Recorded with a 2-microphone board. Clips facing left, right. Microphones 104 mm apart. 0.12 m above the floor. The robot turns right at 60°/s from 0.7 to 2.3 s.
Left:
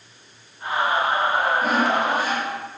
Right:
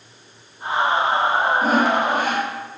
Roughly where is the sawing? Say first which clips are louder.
Right 2 dB; behind right.